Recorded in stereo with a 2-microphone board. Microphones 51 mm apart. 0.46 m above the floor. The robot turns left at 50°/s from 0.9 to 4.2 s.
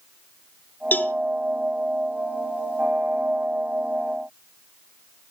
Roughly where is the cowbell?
Left.